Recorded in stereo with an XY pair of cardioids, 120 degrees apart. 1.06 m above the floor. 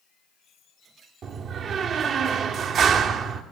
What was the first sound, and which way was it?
A door slam, 55° right.